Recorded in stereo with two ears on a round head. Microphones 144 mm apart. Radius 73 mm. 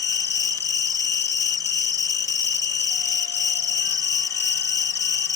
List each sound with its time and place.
0.0 s an insect: 15° left (ahead or behind)